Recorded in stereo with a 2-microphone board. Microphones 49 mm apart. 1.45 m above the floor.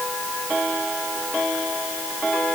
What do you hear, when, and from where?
Only background noise.